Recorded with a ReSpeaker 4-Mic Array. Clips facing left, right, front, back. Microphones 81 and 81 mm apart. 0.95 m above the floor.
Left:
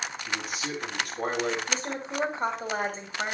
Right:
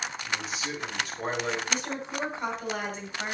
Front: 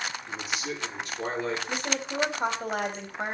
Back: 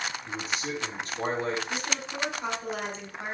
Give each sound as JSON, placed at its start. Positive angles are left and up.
{"t": 0.2, "sound": "a man speaking", "azimuth_deg": 125, "distance_m": 8.5}
{"t": 1.7, "sound": "a woman speaking", "azimuth_deg": 35, "distance_m": 4.0}